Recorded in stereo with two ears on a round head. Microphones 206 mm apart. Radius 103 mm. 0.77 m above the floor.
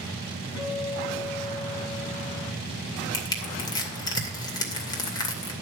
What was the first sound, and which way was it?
A guitar, 45° left (ahead or behind).